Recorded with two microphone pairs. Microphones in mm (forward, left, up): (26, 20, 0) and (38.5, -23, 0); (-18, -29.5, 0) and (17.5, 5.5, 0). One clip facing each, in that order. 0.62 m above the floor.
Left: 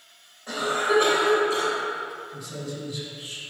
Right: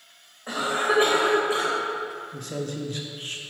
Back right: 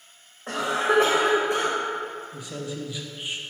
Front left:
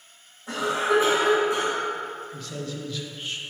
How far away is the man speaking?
About 1.0 m.